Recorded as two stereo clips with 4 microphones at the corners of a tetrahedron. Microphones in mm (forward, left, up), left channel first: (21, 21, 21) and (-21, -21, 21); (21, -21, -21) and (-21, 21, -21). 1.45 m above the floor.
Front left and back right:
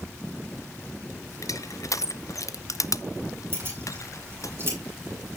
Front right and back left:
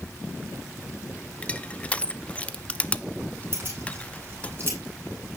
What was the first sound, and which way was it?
Crushing, 20° left.